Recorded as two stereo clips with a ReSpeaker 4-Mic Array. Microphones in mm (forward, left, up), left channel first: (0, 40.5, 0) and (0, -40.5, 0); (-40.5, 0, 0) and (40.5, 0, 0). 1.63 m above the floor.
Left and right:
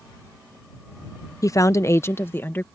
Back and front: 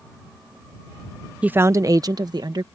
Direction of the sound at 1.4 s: 70° left.